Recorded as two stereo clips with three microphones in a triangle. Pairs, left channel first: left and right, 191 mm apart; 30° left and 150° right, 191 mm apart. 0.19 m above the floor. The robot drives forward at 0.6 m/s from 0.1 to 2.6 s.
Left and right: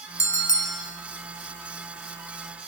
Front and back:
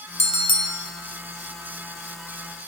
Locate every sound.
0.2 s a bell: 30° left, 0.9 m; by 0.9 s 85° left, 0.8 m